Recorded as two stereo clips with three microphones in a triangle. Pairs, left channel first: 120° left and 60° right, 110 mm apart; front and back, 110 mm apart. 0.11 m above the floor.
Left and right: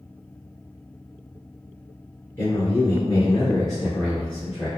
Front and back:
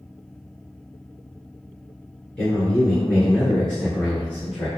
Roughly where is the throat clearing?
No throat clearing in this recording.